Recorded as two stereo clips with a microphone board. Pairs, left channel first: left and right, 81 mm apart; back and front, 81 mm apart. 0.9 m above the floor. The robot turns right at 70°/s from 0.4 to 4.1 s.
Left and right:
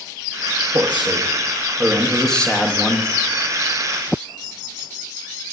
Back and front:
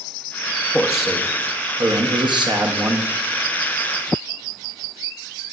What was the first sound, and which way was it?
A man speaking, 105° right.